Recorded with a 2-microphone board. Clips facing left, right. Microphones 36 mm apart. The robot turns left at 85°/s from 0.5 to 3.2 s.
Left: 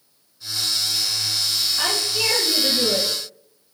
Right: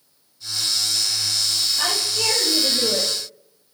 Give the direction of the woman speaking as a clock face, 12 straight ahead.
7 o'clock.